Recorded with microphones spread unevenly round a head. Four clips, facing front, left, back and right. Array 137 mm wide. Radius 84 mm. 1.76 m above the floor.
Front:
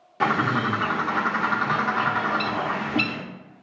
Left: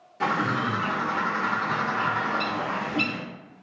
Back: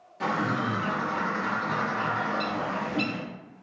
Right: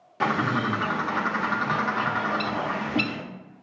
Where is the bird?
Straight ahead, 0.7 m.